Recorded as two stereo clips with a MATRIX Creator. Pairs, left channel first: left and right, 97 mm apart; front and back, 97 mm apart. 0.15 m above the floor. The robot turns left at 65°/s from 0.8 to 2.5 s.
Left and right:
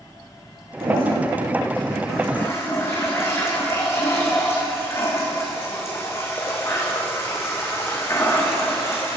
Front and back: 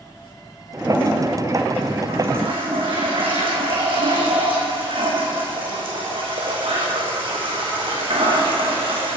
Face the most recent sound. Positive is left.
turn(degrees=150)